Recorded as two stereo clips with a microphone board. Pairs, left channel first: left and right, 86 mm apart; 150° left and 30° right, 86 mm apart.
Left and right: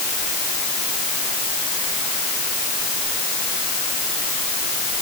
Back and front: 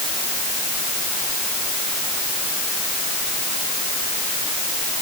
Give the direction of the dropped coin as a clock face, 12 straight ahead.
No dropped coin in this recording.